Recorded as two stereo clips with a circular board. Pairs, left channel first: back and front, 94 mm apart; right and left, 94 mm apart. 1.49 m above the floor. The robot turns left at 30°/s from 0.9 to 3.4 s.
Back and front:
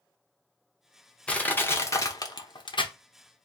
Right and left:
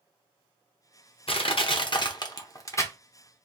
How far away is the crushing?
About 0.8 m.